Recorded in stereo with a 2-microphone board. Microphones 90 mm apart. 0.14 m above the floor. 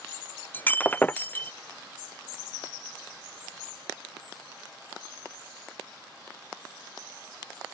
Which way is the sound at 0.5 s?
25° left (ahead or behind).